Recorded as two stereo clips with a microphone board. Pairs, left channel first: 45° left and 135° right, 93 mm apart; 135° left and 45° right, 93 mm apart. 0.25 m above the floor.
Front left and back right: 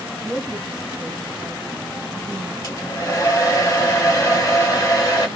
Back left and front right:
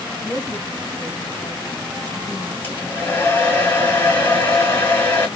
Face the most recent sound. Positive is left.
turn(degrees=80)